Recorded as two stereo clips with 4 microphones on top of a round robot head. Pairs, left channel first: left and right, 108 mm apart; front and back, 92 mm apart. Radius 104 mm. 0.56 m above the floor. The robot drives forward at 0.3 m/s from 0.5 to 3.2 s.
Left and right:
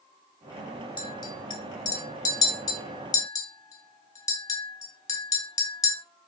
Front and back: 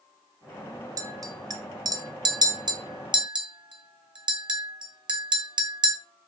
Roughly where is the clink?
Behind left.